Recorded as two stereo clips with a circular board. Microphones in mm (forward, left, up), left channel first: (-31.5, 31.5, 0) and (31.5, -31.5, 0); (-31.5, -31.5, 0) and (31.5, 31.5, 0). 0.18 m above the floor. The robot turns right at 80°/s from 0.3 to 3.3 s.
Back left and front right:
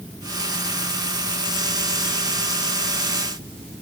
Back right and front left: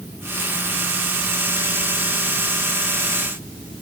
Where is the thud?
I don't hear a thud.